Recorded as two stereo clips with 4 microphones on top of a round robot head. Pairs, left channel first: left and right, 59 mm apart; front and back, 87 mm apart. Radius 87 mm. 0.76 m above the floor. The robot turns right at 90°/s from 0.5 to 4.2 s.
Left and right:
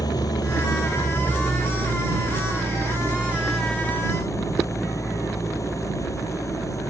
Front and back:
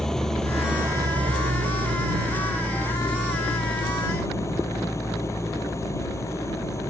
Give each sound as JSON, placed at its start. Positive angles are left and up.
{"t": 0.0, "sound": "an engine running", "azimuth_deg": 85}